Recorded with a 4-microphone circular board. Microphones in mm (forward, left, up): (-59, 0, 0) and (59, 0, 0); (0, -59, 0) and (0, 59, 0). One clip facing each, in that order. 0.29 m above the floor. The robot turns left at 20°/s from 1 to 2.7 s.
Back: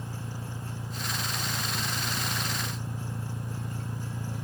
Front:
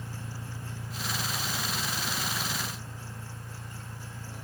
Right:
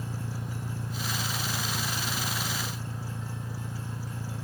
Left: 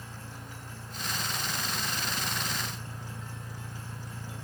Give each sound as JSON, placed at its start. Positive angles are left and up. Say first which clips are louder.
{"t": 0.0, "sound": "an engine running", "louder": "back 3 dB, right 8 dB", "azimuth_deg": -115}